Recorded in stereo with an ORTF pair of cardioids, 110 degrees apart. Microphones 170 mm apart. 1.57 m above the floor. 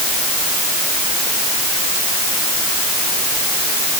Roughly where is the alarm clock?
No alarm clock in this recording.